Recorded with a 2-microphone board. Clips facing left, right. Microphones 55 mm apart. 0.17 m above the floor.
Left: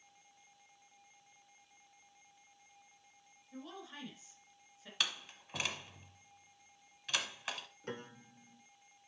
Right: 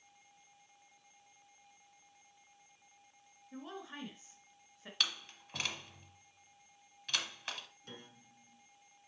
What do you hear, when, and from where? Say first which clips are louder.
3.5 s a woman speaking: right 2 dB; 35° right (ahead or behind), 2 m
5.0 s a door slam: even; 5° left (ahead or behind), 1.2 m
7.8 s a piano: left 8 dB; 50° left (ahead or behind), 0.9 m